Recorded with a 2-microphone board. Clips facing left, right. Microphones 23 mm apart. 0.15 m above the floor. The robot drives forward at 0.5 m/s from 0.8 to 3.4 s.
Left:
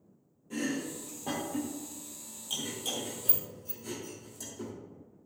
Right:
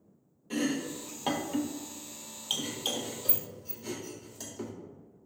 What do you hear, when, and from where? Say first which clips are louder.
0.5 s chopping: right 3 dB; 65° right (ahead or behind), 0.9 m; by 4.7 s 40° right (ahead or behind), 1.3 m